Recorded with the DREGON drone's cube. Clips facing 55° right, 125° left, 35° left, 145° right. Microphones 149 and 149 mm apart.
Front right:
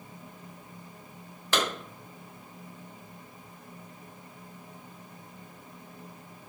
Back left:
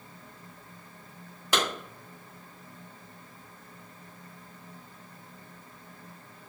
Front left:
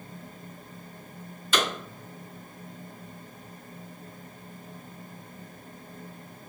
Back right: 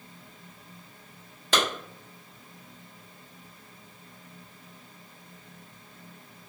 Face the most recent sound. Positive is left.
turn(degrees=-160)